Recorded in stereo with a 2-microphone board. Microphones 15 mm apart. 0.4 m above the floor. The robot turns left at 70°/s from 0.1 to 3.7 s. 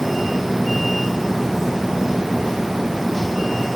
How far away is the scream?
No scream in this recording.